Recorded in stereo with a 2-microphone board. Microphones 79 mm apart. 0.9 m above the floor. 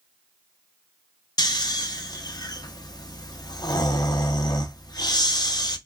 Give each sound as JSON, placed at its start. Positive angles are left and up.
{"t": 1.4, "sound": "snoring", "side_deg": 60, "distance_m": 0.5}